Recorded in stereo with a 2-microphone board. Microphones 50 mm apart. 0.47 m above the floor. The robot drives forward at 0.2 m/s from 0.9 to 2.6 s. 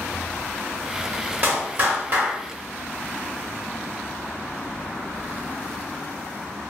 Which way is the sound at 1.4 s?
40° right (ahead or behind).